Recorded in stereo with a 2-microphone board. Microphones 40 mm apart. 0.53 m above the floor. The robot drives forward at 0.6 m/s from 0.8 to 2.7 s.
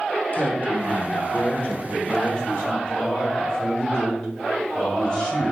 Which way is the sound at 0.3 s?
40° left (ahead or behind).